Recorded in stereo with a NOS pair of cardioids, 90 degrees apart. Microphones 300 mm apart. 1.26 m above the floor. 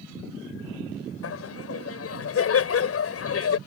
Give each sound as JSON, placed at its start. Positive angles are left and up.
{"t": 1.2, "sound": "laughter", "azimuth_deg": 50}